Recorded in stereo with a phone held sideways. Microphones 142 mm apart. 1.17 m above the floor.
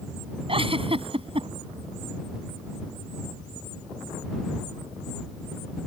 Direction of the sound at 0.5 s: 40° right (ahead or behind).